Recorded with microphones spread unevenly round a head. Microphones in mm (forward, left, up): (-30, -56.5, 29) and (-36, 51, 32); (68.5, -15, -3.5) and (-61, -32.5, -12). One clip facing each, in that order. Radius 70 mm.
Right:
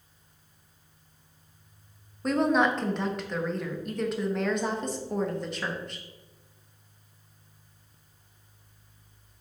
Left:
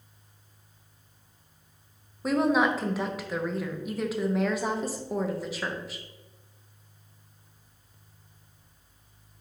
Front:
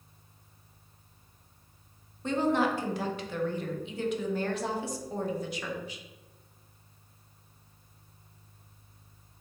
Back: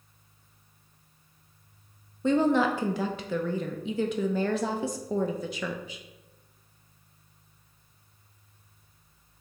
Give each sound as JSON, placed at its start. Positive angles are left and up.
{"t": 2.2, "sound": "a woman speaking", "azimuth_deg": 180, "distance_m": 0.5}